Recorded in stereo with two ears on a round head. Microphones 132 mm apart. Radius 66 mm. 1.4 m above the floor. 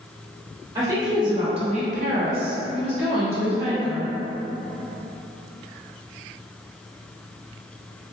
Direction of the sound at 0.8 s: 25° right (ahead or behind).